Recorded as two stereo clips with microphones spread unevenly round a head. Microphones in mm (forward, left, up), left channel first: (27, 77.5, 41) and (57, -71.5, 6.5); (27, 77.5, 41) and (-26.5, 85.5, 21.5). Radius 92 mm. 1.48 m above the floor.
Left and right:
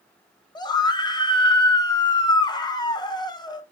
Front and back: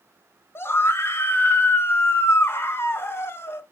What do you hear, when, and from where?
0.6 s a scream: 40° left, 1.7 m